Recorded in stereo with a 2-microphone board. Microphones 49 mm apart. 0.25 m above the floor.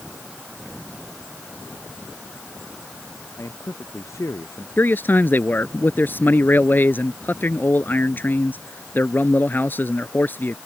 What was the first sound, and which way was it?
A man speaking, 80° left.